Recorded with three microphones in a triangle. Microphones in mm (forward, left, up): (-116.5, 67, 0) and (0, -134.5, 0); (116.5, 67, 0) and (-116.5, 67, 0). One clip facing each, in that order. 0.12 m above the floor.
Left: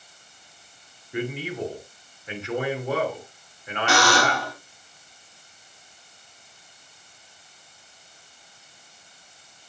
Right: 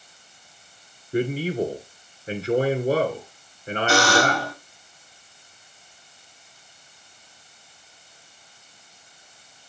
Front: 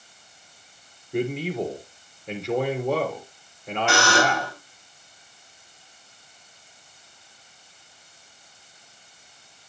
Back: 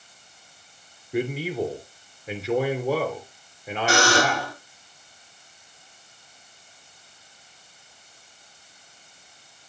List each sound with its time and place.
1.1 s a man speaking: 95° right, 1.6 m
3.9 s a buzzer: 130° left, 5.5 m